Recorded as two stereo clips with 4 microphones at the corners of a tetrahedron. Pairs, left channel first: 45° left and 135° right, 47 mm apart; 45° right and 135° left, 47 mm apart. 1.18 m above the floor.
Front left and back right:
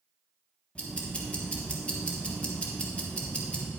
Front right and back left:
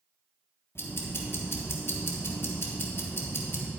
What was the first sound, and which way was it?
Ticking, 20° right.